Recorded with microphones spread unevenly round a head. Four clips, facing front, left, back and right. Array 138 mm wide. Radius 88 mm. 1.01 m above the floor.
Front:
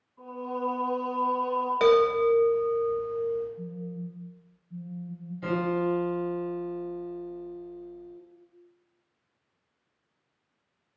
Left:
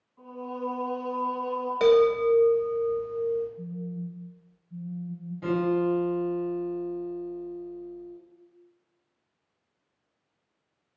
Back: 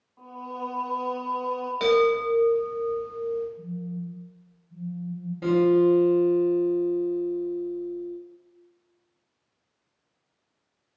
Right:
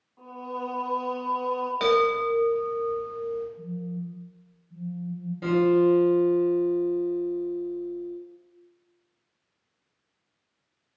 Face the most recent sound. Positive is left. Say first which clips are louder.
# right 5 dB, back 8 dB
turn(degrees=-155)